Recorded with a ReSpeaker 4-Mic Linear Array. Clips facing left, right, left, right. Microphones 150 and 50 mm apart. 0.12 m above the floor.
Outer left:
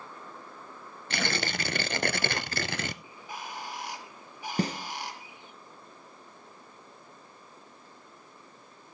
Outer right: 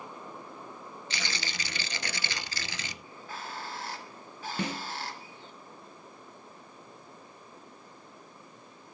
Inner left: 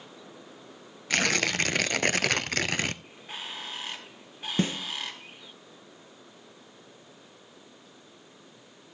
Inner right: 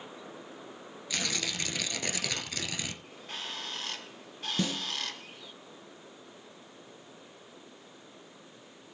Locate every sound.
1.1 s tearing paper: 55° left (ahead or behind), 0.7 m
3.0 s a bird: 15° left (ahead or behind), 1.3 m
4.6 s a snare drum: 35° left (ahead or behind), 2 m